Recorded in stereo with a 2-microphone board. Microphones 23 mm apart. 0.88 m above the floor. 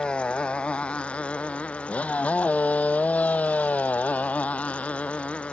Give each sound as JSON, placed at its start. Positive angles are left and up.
{"t": 0.0, "sound": "a motorcycle", "side_deg": 45}